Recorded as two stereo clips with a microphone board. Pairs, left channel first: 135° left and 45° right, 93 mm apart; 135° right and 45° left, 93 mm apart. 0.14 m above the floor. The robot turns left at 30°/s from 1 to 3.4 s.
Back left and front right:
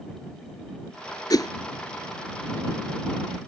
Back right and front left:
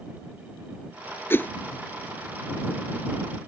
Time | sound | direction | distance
1.3 | a whoosh | 165° left | ?